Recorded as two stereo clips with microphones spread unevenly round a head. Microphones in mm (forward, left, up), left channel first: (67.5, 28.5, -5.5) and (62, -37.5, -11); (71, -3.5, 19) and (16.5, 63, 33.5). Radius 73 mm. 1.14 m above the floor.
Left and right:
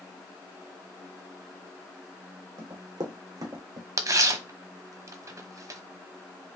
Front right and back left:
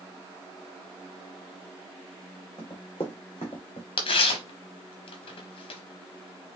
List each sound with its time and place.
2.6 s running footsteps: 115° right, 2.5 m; by 3.9 s 90° right, 1.8 m
4.0 s tearing paper: 60° right, 1.0 m